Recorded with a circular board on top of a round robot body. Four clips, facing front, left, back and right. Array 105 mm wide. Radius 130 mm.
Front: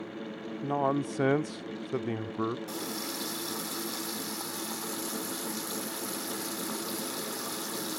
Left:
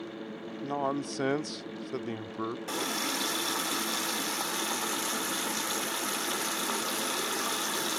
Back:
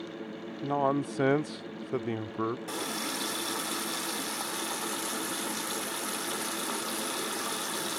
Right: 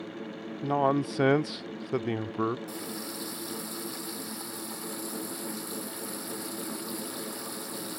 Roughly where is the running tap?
Left.